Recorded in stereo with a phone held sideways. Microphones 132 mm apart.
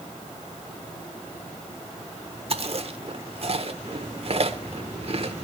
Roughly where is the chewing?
Right.